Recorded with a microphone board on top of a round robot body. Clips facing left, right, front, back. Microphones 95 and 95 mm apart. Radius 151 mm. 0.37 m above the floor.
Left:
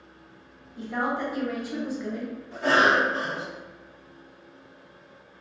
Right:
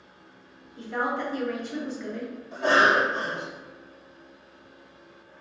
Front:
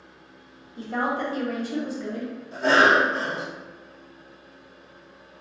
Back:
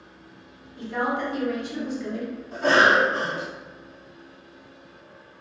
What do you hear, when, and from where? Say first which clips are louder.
0.8 s a woman speaking: left 1 dB, even; 10° left, 1.2 m
2.5 s a cough: even, even; 155° right, 1.7 m